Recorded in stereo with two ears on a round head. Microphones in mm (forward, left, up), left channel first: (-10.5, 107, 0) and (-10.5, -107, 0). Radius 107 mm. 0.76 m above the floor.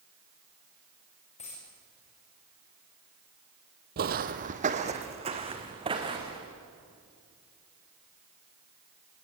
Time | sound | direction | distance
1.4 | a dropped coin | 30° left (ahead or behind) | 7 m
4.0 | footsteps | 40° right (ahead or behind) | 1.2 m